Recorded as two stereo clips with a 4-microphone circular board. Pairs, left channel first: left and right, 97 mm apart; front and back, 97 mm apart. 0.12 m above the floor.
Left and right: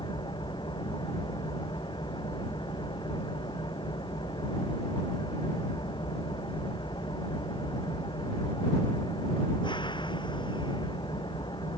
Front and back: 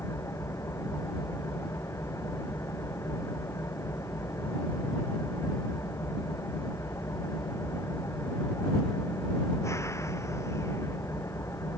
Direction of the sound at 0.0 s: 60° left.